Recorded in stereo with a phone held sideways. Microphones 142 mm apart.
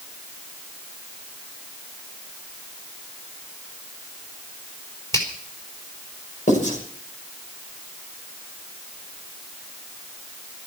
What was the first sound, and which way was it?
A finger snap, 20° left (ahead or behind).